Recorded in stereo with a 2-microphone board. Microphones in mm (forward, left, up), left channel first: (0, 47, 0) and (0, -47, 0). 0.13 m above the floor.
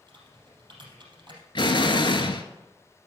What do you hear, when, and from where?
0.1 s typing on a keyboard: 55° right (ahead or behind), 3.5 m
1.6 s an explosion: 55° left (ahead or behind), 0.9 m